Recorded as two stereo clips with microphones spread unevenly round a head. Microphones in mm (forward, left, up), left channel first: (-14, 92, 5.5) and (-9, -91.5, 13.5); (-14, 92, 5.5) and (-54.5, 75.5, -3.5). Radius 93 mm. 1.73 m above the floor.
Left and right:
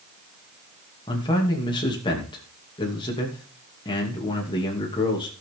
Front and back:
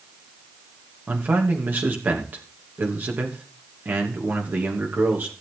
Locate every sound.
1.1 s a man speaking: 160° left, 3 m